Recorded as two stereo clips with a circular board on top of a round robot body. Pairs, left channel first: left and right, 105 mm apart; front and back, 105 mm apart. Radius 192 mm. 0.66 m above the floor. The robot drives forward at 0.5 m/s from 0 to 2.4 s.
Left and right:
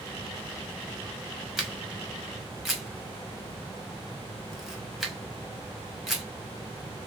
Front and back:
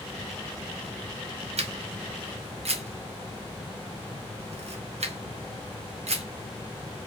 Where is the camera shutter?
Straight behind, 1.6 m.